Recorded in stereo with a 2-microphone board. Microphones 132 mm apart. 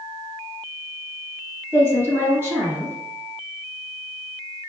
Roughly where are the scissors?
I don't hear scissors.